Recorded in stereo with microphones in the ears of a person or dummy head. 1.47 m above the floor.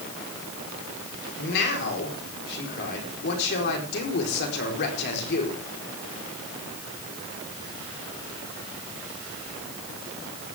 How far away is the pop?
No pop in this recording.